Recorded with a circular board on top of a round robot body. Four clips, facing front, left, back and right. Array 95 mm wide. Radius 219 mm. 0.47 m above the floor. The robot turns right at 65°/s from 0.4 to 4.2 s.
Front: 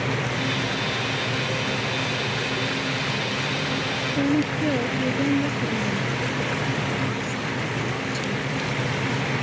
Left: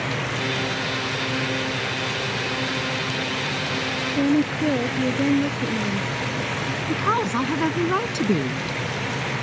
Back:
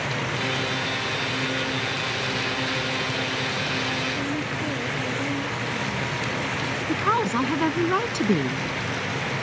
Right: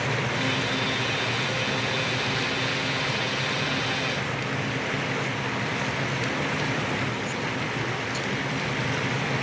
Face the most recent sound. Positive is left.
turn(degrees=135)